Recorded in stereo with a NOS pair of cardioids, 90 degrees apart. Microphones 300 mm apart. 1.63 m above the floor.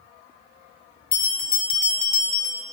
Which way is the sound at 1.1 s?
30° left.